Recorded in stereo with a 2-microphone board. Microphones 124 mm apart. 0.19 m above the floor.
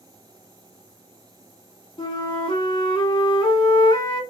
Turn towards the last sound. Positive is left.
turn(degrees=40)  # may be behind; listen again after turning